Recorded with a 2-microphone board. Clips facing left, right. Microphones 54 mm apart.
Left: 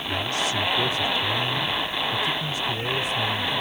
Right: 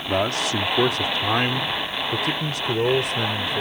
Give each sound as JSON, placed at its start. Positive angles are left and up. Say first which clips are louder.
{"t": 0.1, "sound": "a man speaking", "louder": "right 4 dB", "side_deg": -65}